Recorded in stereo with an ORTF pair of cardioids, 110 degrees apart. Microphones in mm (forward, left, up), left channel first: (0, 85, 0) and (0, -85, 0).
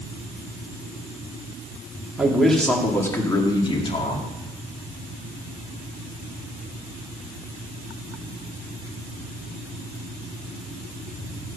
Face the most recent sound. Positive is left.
turn(degrees=40)